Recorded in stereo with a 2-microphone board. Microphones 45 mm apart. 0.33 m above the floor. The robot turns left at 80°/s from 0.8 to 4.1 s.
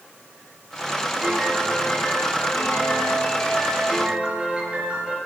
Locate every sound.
1.2 s a piano: 155° right, 7 m; by 5.2 s 25° right, 7 m